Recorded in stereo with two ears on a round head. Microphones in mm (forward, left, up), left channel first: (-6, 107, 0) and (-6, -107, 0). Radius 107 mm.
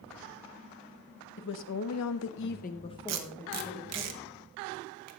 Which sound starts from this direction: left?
A woman speaking, at 1.4 s.